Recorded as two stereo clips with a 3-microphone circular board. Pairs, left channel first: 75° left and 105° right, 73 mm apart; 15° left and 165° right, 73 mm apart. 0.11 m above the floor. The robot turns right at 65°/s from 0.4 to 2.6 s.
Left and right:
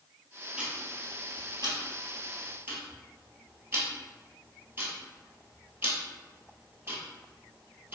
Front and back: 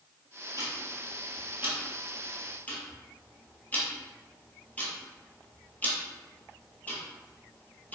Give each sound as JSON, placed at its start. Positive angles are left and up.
{"t": 0.6, "sound": "ticking", "azimuth_deg": 180, "distance_m": 0.9}